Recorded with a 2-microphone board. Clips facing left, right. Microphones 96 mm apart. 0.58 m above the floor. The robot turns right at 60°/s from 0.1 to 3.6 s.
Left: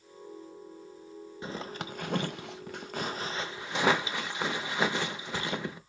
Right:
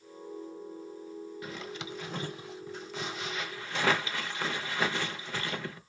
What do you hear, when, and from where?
1.4 s a zipper: 30° left (ahead or behind), 0.5 m; by 5.8 s 20° left (ahead or behind), 0.5 m